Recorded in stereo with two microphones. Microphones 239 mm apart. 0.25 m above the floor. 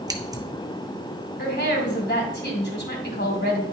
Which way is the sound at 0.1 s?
15° right (ahead or behind).